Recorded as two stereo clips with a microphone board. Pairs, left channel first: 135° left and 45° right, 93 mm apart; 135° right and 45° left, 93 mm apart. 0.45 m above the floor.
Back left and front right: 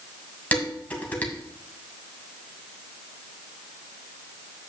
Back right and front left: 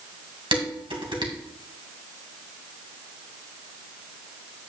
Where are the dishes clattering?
60° left, 2 m.